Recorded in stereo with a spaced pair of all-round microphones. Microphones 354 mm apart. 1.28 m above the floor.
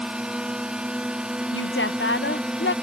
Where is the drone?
5° right (ahead or behind).